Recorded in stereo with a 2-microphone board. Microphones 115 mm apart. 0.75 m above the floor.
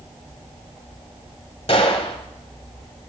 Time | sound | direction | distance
1.7 | a gunshot | 55° left (ahead or behind) | 1.2 m